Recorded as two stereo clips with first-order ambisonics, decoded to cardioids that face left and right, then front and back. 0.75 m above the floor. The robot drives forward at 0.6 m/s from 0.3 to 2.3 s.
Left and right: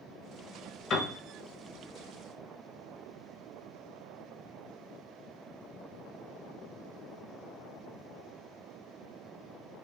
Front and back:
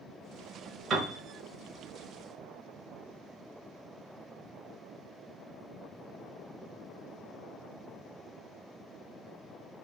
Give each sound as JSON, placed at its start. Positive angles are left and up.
{"t": 0.9, "sound": "a piano", "azimuth_deg": 130, "distance_m": 0.9}